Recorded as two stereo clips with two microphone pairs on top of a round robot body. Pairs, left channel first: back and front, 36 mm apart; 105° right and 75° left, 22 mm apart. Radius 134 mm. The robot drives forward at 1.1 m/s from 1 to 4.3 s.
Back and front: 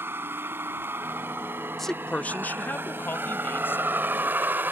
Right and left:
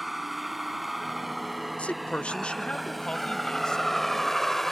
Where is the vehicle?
15° right; by 4.7 s 30° right.